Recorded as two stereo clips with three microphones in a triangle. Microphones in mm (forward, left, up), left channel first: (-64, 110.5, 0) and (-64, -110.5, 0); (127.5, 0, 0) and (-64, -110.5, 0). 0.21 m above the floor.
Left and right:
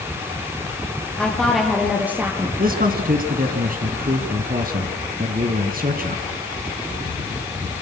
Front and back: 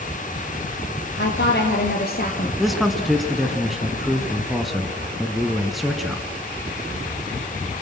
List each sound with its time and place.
1.2 s a woman speaking: 5° left, 5 m; by 2.5 s 15° right, 4.5 m
2.6 s a man speaking: 60° right, 2 m